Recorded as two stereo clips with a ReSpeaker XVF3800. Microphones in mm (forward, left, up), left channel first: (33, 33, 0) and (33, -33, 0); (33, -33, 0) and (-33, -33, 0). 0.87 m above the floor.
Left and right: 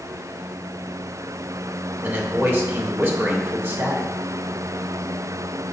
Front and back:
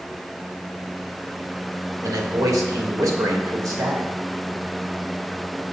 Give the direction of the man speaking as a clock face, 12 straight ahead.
5 o'clock.